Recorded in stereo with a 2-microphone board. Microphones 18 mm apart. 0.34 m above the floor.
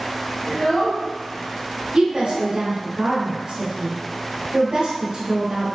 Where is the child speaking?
45° left (ahead or behind), 1.6 m; by 2.6 s 55° left (ahead or behind), 0.9 m.